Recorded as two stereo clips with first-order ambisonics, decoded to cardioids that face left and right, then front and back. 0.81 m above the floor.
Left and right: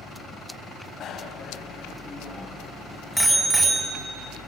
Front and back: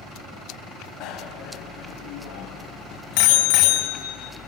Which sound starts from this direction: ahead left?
A bicycle bell, at 1.0 s.